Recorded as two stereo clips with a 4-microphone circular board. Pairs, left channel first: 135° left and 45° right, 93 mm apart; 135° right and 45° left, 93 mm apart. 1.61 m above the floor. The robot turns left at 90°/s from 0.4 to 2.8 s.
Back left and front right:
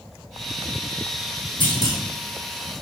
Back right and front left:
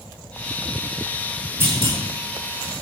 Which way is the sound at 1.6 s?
110° left.